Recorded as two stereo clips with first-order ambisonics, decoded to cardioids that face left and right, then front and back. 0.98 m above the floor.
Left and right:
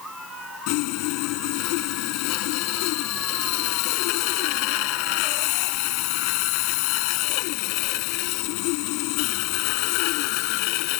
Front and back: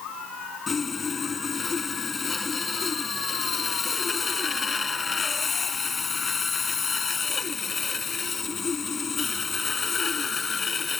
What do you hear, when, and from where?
0.7 s sawing: 75° left